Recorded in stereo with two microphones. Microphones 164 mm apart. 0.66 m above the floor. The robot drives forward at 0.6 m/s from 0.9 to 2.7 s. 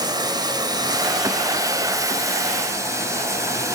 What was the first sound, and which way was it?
Running water, 25° right (ahead or behind).